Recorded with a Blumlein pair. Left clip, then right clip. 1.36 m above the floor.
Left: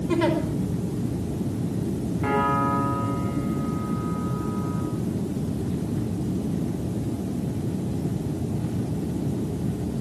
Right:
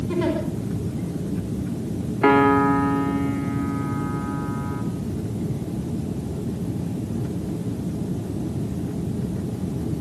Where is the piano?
35° right, 3 m.